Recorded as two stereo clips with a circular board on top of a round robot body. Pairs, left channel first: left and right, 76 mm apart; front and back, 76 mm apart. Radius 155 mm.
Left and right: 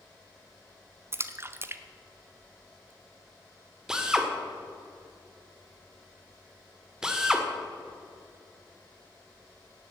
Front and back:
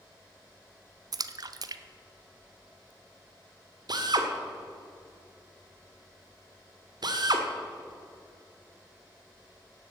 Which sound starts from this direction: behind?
A drill, at 3.9 s.